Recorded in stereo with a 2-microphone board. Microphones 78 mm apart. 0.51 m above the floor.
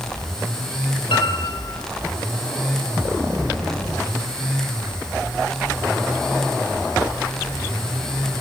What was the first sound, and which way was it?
A piano, 90° left.